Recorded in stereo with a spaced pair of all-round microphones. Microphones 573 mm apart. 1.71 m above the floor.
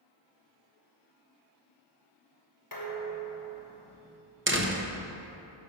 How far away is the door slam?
About 0.7 m.